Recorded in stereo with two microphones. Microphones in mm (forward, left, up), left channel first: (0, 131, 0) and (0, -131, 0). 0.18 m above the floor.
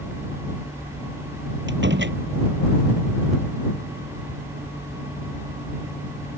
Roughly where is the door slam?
Right.